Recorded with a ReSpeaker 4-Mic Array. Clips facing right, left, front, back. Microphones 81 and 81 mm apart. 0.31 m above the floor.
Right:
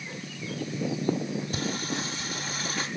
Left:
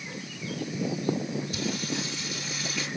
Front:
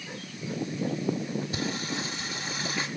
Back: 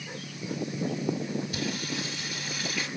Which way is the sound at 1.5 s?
60° right.